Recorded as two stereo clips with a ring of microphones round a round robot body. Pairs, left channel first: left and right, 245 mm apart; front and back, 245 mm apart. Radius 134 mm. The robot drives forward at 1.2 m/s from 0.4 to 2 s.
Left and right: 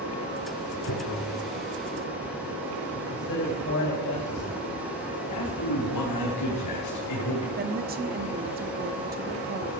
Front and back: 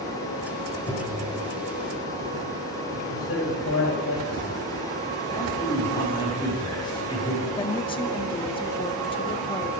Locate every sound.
0.9 s tapping: 85° left, 3 m; by 1.2 s 95° left, 3 m
3.0 s a man speaking: 45° left, 3.5 m
5.3 s a man speaking: 75° left, 4.5 m
7.6 s a woman speaking: 60° right, 1.0 m